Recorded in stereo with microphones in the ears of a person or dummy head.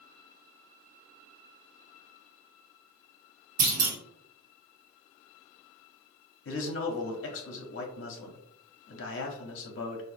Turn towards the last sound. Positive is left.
turn(degrees=55)  # may be behind; listen again after turning